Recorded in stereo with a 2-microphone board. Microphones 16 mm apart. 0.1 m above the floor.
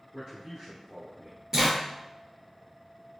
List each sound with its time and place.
0.1 s a man speaking: 30° right (ahead or behind), 1.6 m; by 1.4 s 25° right (ahead or behind), 1.4 m
1.5 s a zipper: 45° right (ahead or behind), 1.5 m